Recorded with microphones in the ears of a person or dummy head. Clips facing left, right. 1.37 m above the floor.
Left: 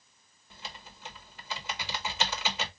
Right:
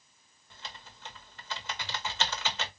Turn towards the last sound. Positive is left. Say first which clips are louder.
# left 2 dB
turn(degrees=10)  # may be behind; listen again after turning